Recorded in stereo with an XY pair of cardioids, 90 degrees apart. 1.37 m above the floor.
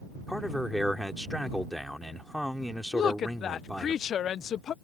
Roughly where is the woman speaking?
Left.